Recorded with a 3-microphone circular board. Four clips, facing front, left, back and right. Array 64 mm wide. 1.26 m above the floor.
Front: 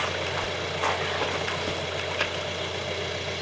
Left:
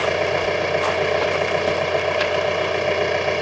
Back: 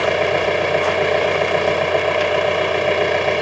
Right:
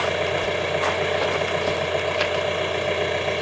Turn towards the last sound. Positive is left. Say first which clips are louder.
# left 3 dB, back 12 dB
turn(degrees=165)